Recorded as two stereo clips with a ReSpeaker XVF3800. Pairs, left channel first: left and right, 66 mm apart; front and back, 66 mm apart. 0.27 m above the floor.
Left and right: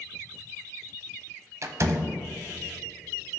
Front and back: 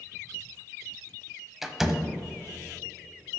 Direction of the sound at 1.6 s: 95° right.